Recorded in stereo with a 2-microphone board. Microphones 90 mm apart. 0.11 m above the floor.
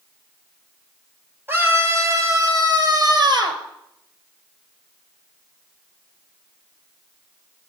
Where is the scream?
25° right (ahead or behind), 3 m; by 3.6 s 55° right (ahead or behind), 3 m.